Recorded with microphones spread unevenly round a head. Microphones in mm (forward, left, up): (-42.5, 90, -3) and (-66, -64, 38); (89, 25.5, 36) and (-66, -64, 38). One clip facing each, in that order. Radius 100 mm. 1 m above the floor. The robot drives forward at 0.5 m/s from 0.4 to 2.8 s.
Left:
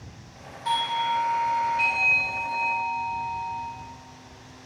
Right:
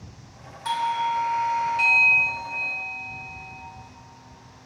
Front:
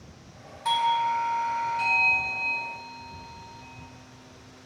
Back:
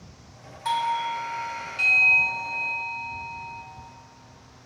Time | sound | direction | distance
0.7 | a doorbell | 60° right | 1.0 m